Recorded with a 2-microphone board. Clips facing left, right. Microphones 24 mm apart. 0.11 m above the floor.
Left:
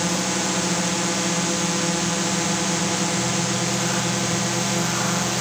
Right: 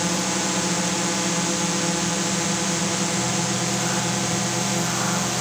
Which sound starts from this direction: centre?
A drone, at 0.0 s.